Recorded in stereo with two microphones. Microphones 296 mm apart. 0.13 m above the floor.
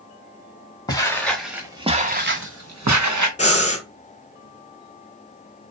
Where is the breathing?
25° left (ahead or behind), 0.6 m.